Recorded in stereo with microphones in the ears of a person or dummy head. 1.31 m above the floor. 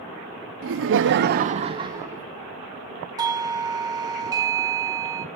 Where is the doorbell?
20° right (ahead or behind), 0.6 m.